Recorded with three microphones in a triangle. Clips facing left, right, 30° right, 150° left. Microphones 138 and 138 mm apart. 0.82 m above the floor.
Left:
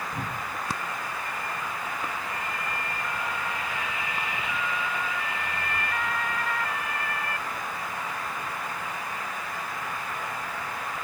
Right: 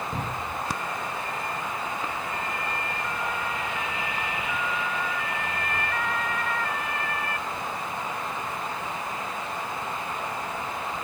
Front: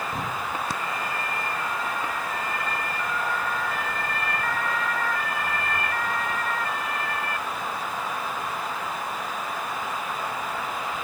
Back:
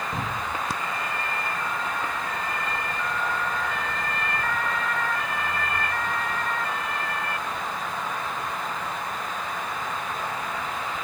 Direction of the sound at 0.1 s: 130° right.